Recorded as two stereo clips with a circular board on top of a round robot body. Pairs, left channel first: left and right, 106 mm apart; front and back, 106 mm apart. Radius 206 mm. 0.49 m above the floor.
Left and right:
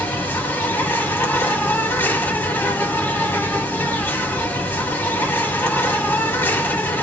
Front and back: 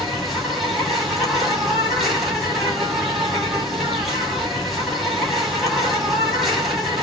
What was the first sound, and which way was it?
An insect, 95° left.